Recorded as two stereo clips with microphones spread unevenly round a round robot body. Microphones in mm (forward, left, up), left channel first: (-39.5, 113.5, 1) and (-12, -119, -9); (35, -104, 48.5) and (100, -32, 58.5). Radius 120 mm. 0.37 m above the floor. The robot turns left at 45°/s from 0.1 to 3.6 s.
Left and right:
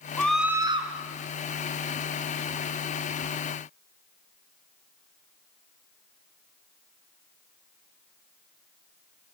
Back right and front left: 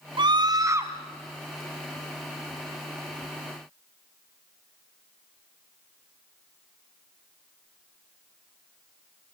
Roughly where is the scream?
Ahead.